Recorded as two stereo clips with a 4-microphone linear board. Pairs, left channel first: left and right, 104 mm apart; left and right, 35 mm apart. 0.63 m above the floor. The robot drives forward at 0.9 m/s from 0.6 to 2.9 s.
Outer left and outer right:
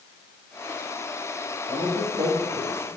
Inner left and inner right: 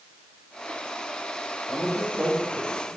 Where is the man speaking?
45° right (ahead or behind), 2.5 m; by 2.9 s 60° right (ahead or behind), 2.0 m.